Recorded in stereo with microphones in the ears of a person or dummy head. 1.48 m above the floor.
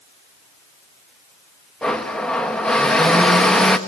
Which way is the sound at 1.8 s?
Centre (ahead or behind).